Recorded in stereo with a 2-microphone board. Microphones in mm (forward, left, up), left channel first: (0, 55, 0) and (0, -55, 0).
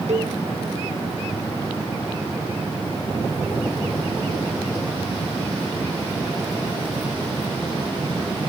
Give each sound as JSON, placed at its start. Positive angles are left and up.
{"t": 0.1, "sound": "a cowbell", "side_deg": -90}